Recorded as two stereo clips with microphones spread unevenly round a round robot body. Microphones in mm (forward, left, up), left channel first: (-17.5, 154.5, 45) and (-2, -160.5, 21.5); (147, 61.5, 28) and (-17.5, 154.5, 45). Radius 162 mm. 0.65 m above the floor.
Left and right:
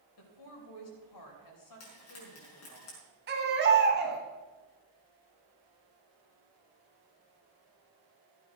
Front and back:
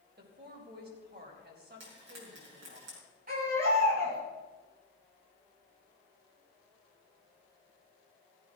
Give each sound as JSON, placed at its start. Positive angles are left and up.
{"t": 0.2, "sound": "a woman speaking", "azimuth_deg": 120, "distance_m": 4.0}
{"t": 1.8, "sound": "frying", "azimuth_deg": 140, "distance_m": 5.5}
{"t": 3.3, "sound": "a baby crying", "azimuth_deg": -145, "distance_m": 3.0}